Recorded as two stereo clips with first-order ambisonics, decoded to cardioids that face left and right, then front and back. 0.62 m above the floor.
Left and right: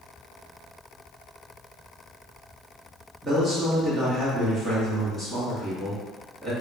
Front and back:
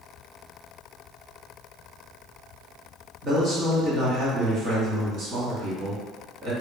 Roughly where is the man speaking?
Behind.